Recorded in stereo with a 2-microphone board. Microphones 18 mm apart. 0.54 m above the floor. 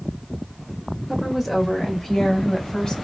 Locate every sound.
1.1 s a woman speaking: 5° left (ahead or behind), 2 m; by 2.9 s 55° left (ahead or behind), 3.5 m